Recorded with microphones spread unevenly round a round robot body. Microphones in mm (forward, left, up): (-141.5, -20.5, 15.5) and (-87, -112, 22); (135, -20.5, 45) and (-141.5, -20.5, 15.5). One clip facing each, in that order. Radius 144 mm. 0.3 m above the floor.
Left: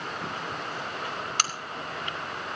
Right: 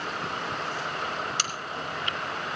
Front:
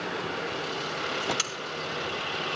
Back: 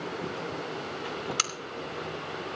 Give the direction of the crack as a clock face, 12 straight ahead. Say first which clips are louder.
Left 3 dB, even; 8 o'clock.